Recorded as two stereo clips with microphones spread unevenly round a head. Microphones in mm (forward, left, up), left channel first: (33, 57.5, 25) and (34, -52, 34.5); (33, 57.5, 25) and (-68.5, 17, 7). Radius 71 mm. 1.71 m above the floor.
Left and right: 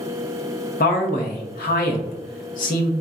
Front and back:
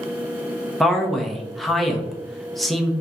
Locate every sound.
0.8 s a man speaking: 105° left, 0.7 m